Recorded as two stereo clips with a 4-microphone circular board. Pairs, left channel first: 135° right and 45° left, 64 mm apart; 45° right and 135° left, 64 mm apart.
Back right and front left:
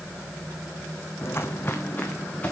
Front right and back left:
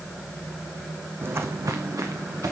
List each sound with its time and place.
1.2 s footsteps: 175° right, 0.7 m; by 2.5 s 160° left, 2.0 m